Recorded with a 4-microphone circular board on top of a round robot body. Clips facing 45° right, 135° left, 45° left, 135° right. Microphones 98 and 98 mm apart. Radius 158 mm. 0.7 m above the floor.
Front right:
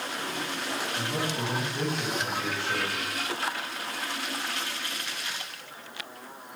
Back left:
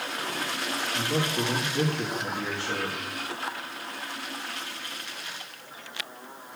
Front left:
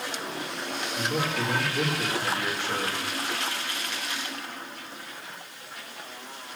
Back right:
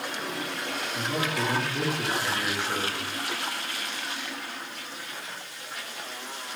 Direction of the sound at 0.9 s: 150° left.